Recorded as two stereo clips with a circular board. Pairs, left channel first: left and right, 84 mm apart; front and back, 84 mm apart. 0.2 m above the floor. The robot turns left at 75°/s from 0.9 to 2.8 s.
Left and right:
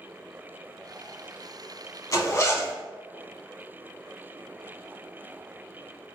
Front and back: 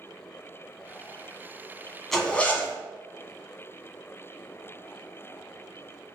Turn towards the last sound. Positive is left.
turn(degrees=35)